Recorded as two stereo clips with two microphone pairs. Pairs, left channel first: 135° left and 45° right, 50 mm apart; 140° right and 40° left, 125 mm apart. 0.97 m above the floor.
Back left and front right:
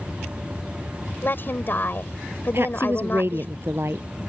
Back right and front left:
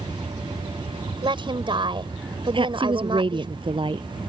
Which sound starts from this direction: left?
A woman speaking, at 1.2 s.